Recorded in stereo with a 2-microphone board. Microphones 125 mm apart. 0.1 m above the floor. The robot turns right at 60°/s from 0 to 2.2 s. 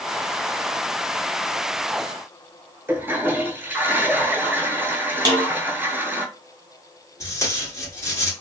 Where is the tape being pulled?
25° left (ahead or behind), 1.3 m.